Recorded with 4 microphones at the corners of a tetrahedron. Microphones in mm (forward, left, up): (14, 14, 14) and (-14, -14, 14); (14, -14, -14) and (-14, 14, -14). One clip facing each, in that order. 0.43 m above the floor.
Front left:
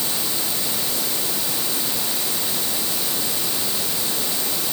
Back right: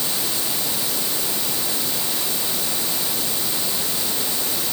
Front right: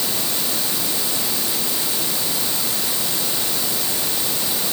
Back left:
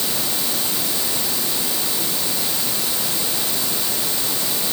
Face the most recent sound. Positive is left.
No sound to turn to.